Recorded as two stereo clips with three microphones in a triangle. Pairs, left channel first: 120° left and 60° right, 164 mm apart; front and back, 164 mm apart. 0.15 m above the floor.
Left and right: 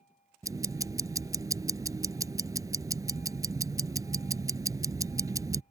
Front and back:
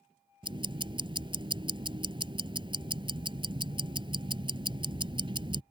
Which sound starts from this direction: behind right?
Ticking, at 0.4 s.